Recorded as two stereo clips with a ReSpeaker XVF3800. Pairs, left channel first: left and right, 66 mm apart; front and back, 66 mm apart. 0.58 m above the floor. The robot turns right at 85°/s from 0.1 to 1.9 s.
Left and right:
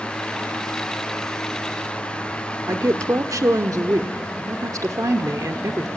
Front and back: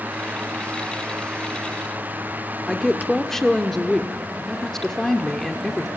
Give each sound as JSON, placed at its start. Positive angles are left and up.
{"t": 2.7, "sound": "a woman speaking", "azimuth_deg": -85, "distance_m": 1.1}